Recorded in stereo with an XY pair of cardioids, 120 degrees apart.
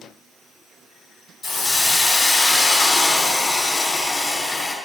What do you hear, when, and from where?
1.4 s a hiss: 35° left, 1.0 m